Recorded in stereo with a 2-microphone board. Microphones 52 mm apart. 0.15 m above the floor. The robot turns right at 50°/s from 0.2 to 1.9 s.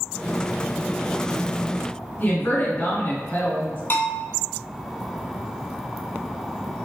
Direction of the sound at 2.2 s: 40° left (ahead or behind).